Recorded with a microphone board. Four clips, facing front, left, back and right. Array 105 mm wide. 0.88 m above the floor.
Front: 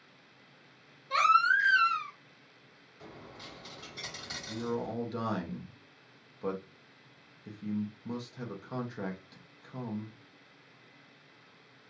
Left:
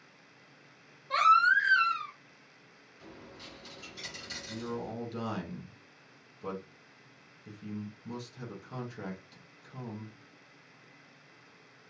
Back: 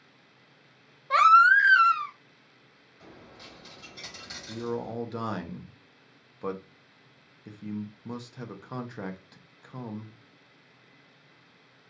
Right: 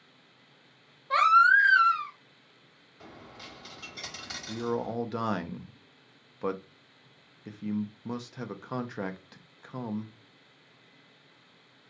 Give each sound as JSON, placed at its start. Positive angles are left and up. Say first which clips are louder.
{"t": 1.1, "sound": "a baby crying", "louder": "right 3 dB, back 7 dB", "azimuth_deg": -160, "distance_m": 0.6}
{"t": 3.0, "sound": "a dropped coin", "louder": "right 2 dB, front 1 dB", "azimuth_deg": -85, "distance_m": 1.2}
{"t": 4.5, "sound": "a man speaking", "louder": "right 7 dB, back 2 dB", "azimuth_deg": -105, "distance_m": 0.6}